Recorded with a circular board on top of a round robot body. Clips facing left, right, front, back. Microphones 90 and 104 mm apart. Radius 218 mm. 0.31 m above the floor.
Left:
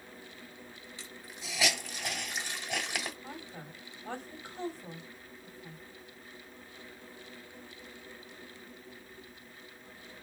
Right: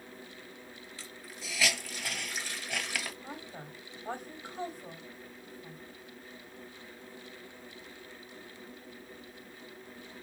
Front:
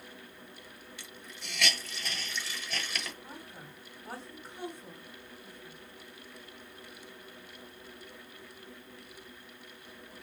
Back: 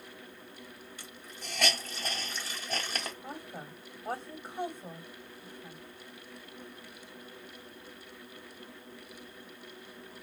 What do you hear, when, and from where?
1.0 s a hiss: 150° left, 1.9 m
3.2 s a woman speaking: 160° right, 1.8 m